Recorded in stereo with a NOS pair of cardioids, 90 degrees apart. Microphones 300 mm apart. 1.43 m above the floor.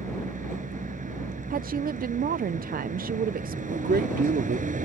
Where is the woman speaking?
30° right.